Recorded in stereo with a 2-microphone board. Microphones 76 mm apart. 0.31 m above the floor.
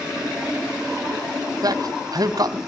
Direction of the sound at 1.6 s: 55° right (ahead or behind).